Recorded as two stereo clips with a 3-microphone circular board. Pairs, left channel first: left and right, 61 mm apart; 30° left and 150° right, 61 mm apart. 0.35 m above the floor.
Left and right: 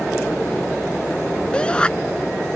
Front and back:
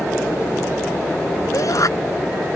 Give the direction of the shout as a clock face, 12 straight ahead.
11 o'clock.